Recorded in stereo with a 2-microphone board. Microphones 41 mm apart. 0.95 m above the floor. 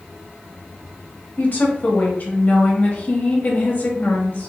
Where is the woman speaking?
40° left (ahead or behind), 1.2 m.